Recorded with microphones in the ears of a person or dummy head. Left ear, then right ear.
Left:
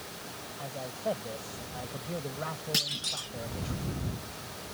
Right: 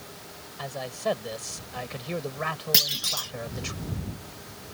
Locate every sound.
0.6 s a man speaking: 65° right (ahead or behind)
2.7 s a clunk: 20° right (ahead or behind)